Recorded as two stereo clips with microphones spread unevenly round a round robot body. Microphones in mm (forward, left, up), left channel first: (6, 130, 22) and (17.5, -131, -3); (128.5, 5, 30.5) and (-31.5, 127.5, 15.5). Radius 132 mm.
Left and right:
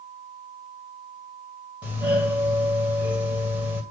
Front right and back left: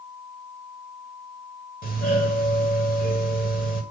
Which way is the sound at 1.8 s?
10° right.